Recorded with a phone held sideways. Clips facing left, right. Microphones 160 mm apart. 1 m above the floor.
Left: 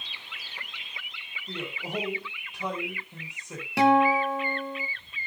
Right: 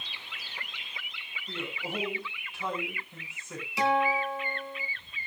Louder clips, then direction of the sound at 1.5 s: Left 2 dB; 20° left (ahead or behind).